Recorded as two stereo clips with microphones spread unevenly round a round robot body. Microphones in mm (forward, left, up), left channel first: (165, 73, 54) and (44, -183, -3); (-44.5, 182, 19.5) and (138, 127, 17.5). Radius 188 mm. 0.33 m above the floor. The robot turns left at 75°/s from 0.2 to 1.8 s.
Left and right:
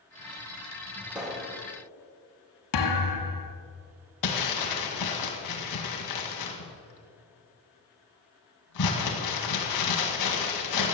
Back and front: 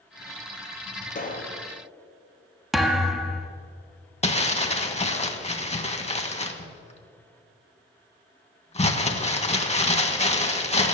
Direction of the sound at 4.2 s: 105° left.